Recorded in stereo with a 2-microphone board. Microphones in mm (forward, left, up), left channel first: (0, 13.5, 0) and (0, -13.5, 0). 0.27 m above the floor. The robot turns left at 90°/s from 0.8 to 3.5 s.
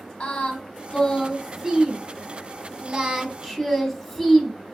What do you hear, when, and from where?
0.2 s singing: 45° left (ahead or behind), 0.9 m; by 4.5 s 10° left (ahead or behind), 0.9 m